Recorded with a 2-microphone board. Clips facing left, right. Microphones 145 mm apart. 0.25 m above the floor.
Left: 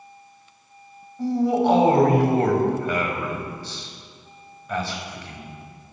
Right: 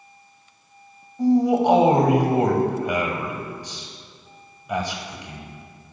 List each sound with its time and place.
1.2 s a man speaking: 15° right (ahead or behind), 1.0 m